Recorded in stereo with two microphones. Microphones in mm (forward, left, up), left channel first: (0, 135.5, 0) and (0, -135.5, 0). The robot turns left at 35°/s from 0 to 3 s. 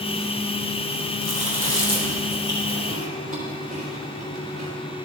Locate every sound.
1.2 s chewing: 30° left (ahead or behind), 3.5 m; by 4.7 s 30° right (ahead or behind), 3.5 m